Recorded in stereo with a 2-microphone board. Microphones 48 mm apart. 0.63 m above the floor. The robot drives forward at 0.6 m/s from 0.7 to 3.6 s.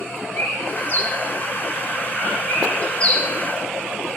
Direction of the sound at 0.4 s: 55° left (ahead or behind).